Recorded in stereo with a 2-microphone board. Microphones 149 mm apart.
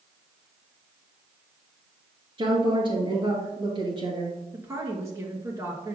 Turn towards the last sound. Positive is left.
turn(degrees=-20)  # may be behind; listen again after turning